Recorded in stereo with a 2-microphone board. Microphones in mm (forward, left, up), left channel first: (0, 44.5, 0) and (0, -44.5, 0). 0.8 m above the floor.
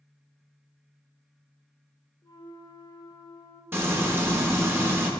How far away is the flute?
About 1.0 m.